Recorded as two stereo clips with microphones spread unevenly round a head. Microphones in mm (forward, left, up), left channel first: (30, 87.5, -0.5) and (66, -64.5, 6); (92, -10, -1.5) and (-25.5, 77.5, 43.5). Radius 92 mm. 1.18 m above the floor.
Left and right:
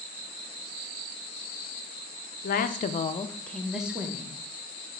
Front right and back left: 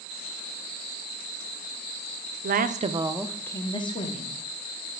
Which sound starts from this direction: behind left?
A woman speaking, at 2.4 s.